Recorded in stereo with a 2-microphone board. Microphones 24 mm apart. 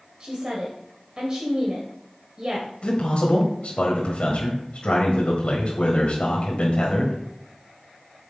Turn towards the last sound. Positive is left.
turn(degrees=55)  # may be behind; listen again after turning